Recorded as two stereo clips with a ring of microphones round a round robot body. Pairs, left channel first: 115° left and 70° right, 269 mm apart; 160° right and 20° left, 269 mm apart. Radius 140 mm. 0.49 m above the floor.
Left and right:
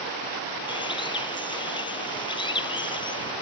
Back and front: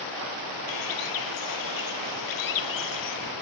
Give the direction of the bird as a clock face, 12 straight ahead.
6 o'clock.